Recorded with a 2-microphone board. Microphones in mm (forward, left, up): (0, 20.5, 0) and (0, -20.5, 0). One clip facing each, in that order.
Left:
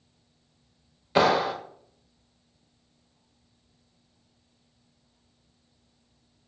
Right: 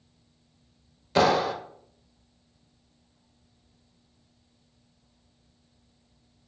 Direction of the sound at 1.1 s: 15° left (ahead or behind).